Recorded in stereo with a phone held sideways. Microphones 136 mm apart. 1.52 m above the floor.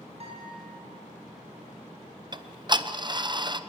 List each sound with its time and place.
0.2 s a guitar: 45° right (ahead or behind), 9 m
2.3 s ticking: 35° right (ahead or behind), 0.8 m